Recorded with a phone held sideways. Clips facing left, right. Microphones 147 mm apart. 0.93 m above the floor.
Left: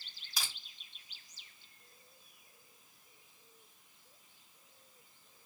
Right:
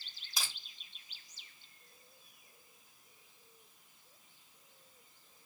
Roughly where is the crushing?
Right.